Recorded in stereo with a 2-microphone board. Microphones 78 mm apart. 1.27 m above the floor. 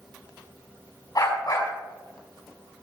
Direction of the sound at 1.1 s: 55° left (ahead or behind).